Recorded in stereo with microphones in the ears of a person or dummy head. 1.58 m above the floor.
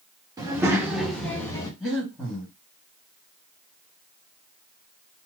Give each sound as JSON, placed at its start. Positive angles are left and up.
{"t": 0.4, "sound": "a child speaking", "side_deg": -10, "distance_m": 1.1}
{"t": 1.8, "sound": "breathing", "side_deg": 5, "distance_m": 1.5}